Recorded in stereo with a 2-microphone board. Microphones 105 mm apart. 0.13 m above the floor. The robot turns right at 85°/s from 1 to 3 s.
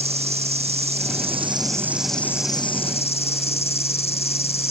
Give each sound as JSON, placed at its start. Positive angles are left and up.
{"t": 0.0, "sound": "an insect", "azimuth_deg": -90}